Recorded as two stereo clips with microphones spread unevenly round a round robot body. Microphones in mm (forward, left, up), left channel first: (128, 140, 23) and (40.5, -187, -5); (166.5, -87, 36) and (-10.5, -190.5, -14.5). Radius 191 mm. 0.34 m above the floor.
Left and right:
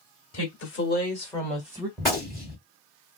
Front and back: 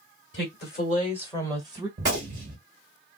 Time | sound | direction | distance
0.3 | a woman speaking | 45° left | 1.8 m
2.0 | a gunshot | 155° left | 1.8 m